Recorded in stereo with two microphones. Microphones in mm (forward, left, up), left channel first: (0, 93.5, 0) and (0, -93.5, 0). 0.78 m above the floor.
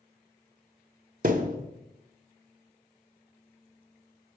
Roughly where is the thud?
Right.